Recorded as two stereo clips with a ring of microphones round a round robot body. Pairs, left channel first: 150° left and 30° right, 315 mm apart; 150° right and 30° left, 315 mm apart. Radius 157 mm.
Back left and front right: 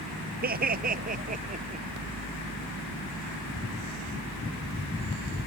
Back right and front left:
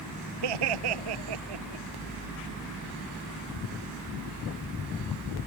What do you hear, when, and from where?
0.4 s laughter: 35° left; by 1.9 s 40° left